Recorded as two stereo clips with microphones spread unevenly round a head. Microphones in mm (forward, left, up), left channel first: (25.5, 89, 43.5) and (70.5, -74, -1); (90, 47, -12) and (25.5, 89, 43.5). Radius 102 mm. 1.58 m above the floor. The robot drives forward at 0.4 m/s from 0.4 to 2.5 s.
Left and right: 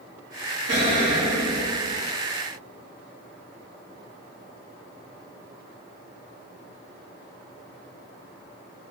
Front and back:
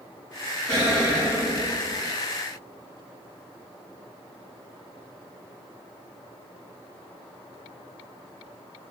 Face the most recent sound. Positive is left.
turn(degrees=-140)